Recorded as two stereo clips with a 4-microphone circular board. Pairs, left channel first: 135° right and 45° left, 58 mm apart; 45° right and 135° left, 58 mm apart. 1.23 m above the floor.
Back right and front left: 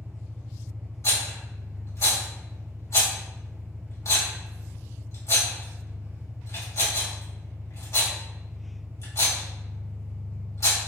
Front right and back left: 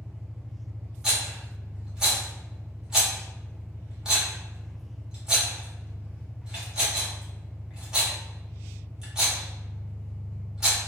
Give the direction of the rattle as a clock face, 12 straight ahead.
5 o'clock.